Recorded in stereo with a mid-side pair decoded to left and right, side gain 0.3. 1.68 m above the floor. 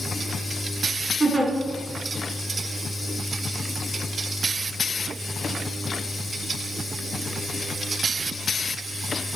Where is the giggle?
40° right, 1.4 m.